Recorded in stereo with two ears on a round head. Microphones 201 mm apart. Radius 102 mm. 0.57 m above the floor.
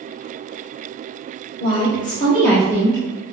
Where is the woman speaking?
40° left (ahead or behind), 1.5 m; by 3.0 s 20° right (ahead or behind), 1.2 m.